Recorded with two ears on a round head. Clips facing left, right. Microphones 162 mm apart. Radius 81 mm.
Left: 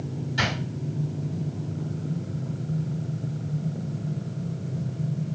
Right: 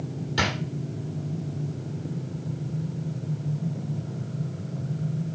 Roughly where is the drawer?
Right.